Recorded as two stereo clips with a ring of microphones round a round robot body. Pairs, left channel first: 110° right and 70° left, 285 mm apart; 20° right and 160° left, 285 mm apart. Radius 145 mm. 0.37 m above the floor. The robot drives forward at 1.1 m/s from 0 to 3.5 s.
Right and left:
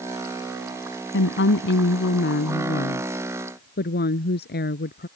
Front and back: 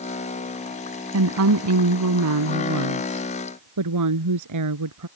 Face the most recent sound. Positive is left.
turn(degrees=-170)